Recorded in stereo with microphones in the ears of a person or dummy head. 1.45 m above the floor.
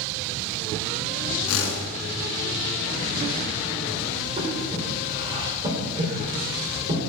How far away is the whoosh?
About 1.9 m.